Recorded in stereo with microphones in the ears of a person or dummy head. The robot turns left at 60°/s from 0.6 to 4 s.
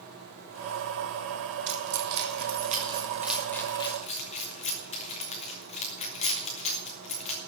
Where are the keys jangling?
70° right (ahead or behind), 2.5 m; by 7.4 s 35° left (ahead or behind), 2.5 m.